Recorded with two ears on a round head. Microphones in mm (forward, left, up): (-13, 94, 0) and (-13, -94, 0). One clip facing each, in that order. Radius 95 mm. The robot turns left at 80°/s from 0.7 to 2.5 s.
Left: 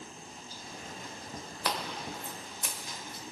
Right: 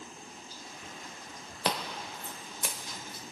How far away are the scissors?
About 1.1 m.